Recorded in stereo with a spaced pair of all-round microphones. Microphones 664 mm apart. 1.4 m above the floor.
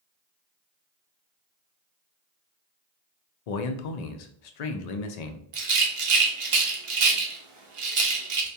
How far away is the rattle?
About 0.6 m.